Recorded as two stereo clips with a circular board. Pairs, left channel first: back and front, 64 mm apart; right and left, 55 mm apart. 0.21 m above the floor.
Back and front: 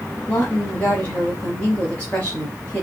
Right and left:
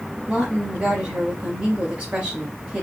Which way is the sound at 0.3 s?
140° left.